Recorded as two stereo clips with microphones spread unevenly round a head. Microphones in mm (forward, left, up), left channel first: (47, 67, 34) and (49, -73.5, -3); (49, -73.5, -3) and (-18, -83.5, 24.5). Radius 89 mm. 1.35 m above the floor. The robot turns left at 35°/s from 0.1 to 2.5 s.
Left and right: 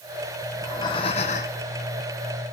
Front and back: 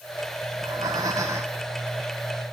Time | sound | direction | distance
0.5 | breathing | 160° left | 0.5 m